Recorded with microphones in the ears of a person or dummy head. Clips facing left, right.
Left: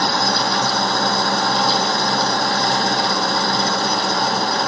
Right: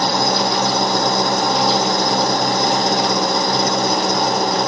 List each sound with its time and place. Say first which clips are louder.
0.0 s an engine running: right 2 dB; 20° right (ahead or behind)